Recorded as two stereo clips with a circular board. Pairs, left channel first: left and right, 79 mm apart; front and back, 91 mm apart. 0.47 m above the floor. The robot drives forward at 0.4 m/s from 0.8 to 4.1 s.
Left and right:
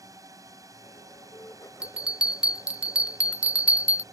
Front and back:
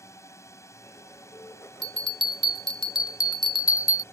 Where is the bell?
15° right; by 4.0 s 30° right.